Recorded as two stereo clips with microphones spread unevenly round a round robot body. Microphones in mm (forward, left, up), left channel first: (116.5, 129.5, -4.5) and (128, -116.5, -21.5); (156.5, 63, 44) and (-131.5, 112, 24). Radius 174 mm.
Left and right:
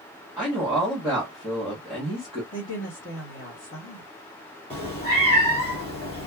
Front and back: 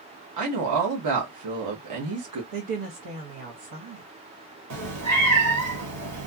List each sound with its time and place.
0.4 s a woman speaking: 175° right, 1.0 m
2.5 s a woman speaking: 155° left, 1.0 m
4.7 s a cat meowing: 155° left, 1.0 m